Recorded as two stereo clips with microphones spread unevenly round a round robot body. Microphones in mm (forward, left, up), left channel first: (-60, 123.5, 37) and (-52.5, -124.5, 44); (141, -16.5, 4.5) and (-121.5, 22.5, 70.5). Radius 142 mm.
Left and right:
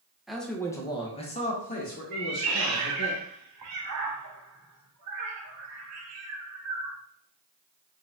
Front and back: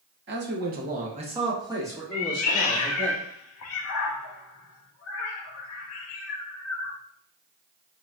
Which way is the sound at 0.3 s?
Straight behind.